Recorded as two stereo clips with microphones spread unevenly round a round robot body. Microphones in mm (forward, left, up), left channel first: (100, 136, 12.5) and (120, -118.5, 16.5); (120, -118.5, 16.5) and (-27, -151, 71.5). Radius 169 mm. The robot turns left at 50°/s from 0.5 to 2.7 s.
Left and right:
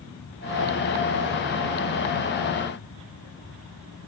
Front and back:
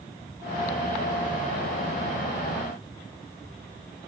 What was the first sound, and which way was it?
Only background noise.